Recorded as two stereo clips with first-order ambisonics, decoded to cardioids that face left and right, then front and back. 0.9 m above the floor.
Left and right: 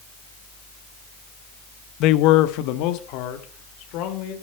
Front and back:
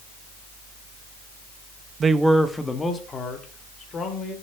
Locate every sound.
2.0 s a man speaking: 115° left, 0.7 m; by 4.3 s 65° left, 3 m